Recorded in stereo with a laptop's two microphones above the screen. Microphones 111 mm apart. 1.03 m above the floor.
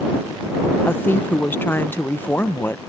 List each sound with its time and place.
0.8 s a woman speaking: 20° left (ahead or behind)